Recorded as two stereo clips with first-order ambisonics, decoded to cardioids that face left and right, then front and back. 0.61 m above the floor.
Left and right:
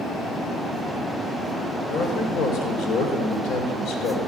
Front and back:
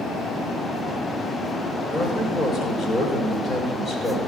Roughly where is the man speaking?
Ahead left.